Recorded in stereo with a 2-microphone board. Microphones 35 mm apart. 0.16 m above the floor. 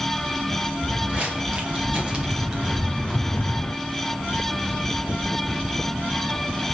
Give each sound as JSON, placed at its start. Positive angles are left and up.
{"t": 0.8, "sound": "footsteps", "side_deg": -40, "distance_m": 4.0}